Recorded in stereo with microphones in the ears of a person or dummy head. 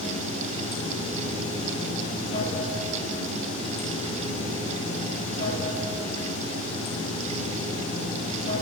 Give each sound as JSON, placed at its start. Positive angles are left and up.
{"t": 0.0, "sound": "running water", "side_deg": 45, "distance_m": 3.0}